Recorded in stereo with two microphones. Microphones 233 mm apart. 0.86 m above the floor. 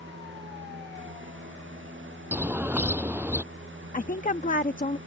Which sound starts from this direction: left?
A woman speaking, at 3.9 s.